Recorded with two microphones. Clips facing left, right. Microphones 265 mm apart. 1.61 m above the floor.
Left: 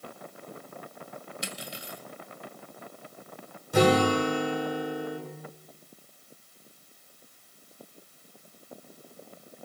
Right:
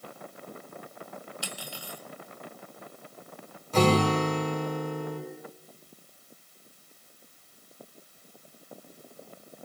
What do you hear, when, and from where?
1.4 s cutlery clinking: 20° left (ahead or behind), 2 m
3.7 s a guitar: 10° left (ahead or behind), 7.5 m